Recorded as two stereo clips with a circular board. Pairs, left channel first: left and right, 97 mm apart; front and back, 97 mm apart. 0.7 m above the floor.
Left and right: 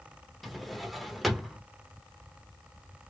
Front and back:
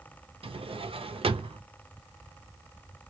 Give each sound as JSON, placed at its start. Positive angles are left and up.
{"t": 0.4, "sound": "a drawer", "azimuth_deg": 180, "distance_m": 0.6}